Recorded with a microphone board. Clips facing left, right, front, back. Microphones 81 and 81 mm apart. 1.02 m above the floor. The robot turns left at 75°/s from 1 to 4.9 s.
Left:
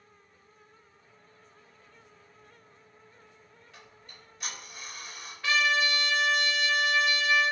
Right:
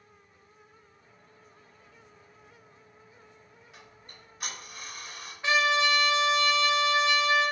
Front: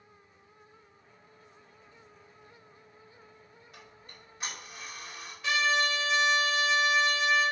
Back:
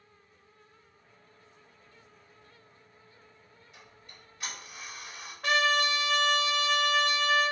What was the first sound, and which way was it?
Ticking, 15° right.